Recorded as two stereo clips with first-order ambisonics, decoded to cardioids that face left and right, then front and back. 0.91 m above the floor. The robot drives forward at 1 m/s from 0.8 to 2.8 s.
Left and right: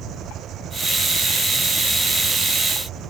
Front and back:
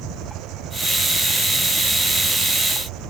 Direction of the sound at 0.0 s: 145° right.